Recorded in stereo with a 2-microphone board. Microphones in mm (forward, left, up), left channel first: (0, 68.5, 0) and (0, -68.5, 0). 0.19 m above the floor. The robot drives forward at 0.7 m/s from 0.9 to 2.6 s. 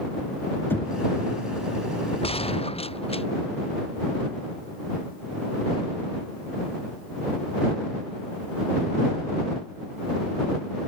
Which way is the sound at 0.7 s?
15° left (ahead or behind).